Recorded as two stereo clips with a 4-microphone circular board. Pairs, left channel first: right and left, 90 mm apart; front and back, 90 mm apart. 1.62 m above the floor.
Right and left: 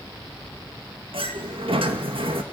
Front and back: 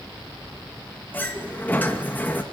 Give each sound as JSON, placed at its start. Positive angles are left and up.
{"t": 1.1, "sound": "a sliding door", "azimuth_deg": 70, "distance_m": 2.5}